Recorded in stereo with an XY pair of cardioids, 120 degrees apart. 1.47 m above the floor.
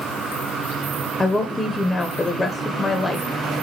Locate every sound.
1.2 s a woman speaking: 20° left, 0.5 m